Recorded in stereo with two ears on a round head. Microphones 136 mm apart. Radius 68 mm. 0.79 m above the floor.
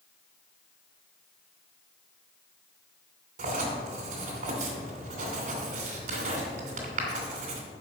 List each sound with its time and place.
3.4 s writing: 55° right (ahead or behind), 2.5 m